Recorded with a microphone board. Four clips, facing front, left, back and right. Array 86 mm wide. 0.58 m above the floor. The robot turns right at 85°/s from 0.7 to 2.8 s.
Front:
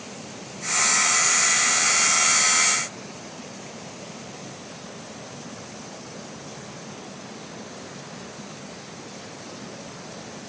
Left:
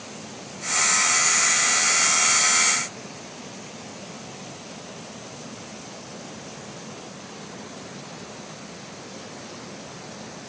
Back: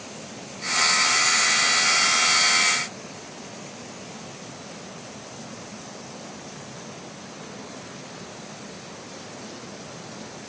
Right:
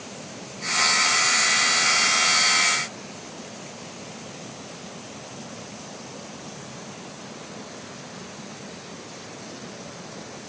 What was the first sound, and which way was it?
Only background noise.